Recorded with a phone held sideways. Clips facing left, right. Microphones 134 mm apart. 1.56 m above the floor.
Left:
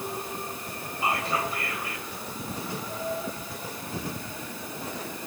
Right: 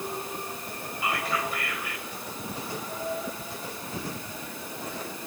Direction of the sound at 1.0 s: 30° left (ahead or behind).